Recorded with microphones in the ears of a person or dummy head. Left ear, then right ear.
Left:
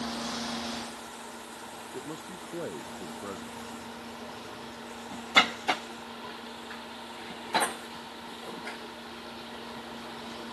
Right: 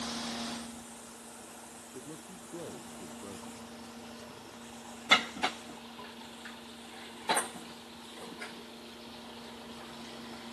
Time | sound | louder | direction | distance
1.9 | a man speaking | left 6 dB | 75° left (ahead or behind) | ?